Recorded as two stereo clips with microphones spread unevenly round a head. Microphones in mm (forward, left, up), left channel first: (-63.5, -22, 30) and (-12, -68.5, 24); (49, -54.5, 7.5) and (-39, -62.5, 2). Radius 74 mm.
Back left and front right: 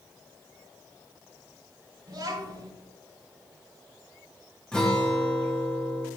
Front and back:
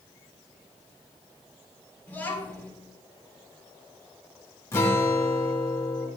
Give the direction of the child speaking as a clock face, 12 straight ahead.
2 o'clock.